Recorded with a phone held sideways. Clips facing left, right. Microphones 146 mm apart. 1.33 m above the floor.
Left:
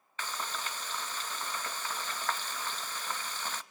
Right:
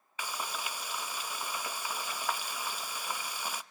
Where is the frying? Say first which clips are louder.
Even; 10° right (ahead or behind), 0.6 m.